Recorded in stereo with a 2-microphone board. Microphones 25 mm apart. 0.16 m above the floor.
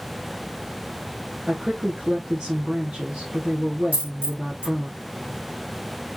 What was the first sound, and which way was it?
A woman speaking, 55° right (ahead or behind).